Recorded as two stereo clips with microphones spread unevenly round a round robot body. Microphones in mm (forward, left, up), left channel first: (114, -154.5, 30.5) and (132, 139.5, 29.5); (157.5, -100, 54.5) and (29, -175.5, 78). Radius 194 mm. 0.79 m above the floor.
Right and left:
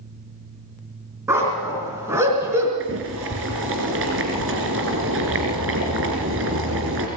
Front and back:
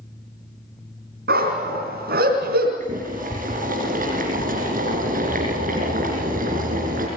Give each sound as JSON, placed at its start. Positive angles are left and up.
{"t": 1.3, "sound": "a dog barking", "azimuth_deg": 170, "distance_m": 4.0}
{"t": 2.8, "sound": "boiling", "azimuth_deg": 145, "distance_m": 3.0}